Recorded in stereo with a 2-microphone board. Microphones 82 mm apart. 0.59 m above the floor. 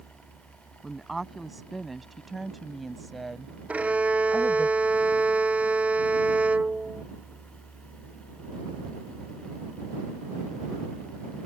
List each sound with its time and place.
0.8 s a woman speaking: centre (ahead or behind)
3.7 s a violin: 15° right (ahead or behind)